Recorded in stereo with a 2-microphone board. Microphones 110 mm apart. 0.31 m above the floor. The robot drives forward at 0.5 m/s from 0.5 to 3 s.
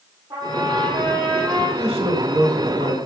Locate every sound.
0.3 s a trumpet: 45° right (ahead or behind), 6 m; by 1.7 s 50° right (ahead or behind), 5.5 m
1.8 s a man speaking: 65° right (ahead or behind), 3 m; by 3.0 s 60° right (ahead or behind), 3 m